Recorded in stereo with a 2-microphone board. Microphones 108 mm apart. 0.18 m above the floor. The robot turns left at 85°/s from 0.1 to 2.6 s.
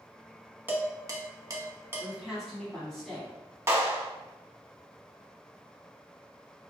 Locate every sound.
0.7 s dishes clattering: 20° right (ahead or behind), 0.9 m; by 2.1 s 15° right (ahead or behind), 0.9 m
2.0 s a woman speaking: 15° right (ahead or behind), 1.2 m; by 3.3 s 5° left (ahead or behind), 1.2 m
3.7 s a clap: 25° right (ahead or behind), 0.9 m